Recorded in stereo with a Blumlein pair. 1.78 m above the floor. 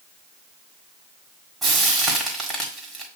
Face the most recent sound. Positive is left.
turn(degrees=-10)